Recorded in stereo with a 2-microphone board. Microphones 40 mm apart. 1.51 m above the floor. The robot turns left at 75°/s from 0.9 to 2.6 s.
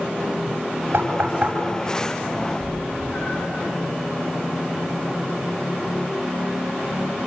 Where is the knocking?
75° right (ahead or behind), 7 m; by 1.5 s 30° right (ahead or behind), 7 m.